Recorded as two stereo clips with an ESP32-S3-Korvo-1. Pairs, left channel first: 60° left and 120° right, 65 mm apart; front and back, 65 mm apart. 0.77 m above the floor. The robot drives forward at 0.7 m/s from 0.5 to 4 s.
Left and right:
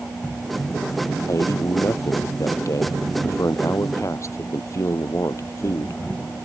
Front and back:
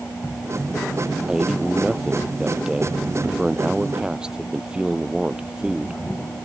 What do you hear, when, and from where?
1.3 s a man speaking: 95° left; by 6.0 s 100° left